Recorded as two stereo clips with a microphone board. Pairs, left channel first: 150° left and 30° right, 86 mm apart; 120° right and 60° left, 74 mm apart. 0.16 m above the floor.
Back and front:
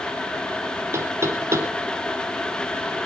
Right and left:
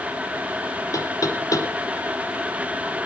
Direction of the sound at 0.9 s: 85° right.